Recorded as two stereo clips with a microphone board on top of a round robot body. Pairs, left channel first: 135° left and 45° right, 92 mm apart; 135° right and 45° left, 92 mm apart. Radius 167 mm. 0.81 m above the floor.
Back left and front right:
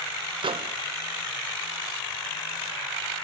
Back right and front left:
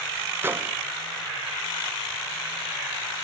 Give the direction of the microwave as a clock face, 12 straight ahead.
1 o'clock.